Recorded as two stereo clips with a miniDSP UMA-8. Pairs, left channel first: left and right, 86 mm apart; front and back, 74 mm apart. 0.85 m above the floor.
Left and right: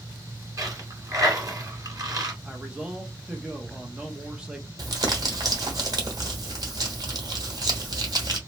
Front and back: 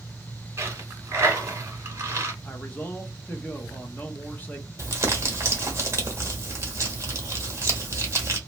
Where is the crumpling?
130° right, 1.1 m.